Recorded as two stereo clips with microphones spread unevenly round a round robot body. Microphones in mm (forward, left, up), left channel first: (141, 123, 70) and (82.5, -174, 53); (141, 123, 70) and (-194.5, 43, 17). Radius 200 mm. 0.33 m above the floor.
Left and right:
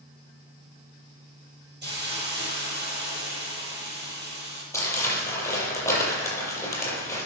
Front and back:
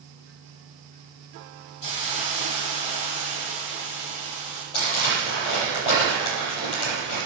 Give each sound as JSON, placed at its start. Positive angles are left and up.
{"t": 1.8, "sound": "a hiss", "azimuth_deg": -45, "distance_m": 9.0}
{"t": 4.7, "sound": "crumpling", "azimuth_deg": 0, "distance_m": 7.5}